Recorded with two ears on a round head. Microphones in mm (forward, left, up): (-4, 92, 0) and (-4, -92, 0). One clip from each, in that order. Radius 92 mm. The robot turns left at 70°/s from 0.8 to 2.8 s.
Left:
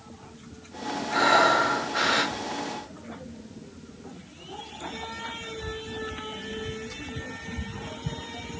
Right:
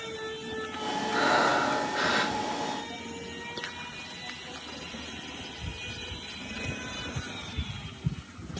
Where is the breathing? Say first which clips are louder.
Left 5 dB; 145° left, 2.0 m; by 2.4 s 60° left, 2.0 m.